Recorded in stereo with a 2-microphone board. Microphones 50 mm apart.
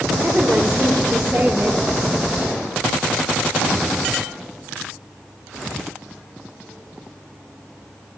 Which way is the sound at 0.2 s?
40° right (ahead or behind).